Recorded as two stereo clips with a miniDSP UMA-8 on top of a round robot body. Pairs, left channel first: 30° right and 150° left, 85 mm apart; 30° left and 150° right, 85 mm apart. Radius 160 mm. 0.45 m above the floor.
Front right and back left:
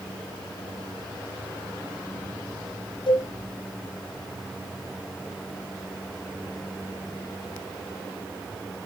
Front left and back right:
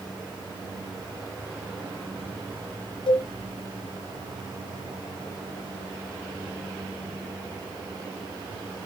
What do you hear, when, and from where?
3.1 s a cowbell: 5° left, 2 m